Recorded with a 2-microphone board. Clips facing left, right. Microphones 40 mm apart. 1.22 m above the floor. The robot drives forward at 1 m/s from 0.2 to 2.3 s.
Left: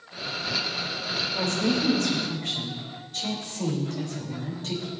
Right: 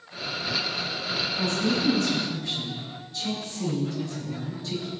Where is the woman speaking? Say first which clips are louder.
Left 1 dB; 80° left, 3.5 m; by 4.9 s 65° left (ahead or behind), 4 m.